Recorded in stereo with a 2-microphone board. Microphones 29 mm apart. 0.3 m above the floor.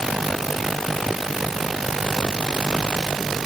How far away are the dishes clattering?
No dishes clattering in this recording.